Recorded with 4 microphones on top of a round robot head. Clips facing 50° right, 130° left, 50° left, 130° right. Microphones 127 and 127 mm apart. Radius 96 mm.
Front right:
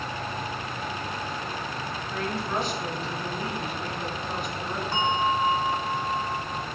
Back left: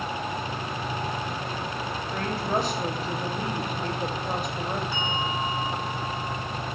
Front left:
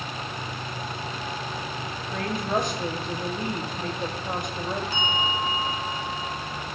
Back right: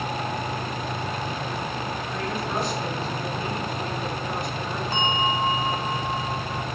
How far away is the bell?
About 1.2 m.